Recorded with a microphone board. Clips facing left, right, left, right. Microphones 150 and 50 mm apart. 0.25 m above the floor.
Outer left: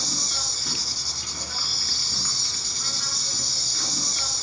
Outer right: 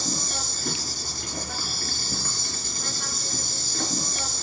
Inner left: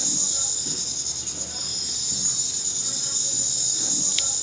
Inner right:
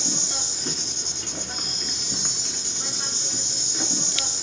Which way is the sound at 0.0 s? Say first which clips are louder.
Outer right 4 dB, inner right 3 dB; 50° right (ahead or behind).